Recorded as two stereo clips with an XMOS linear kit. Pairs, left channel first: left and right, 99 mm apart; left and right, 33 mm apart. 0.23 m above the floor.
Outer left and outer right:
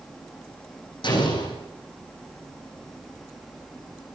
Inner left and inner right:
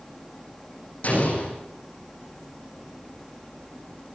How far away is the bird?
No bird in this recording.